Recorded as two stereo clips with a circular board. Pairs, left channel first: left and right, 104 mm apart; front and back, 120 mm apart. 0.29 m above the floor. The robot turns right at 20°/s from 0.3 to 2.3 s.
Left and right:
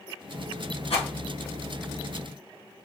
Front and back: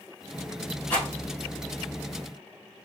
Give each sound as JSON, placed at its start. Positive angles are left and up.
{"t": 0.9, "sound": "a rattle", "azimuth_deg": 75, "distance_m": 2.5}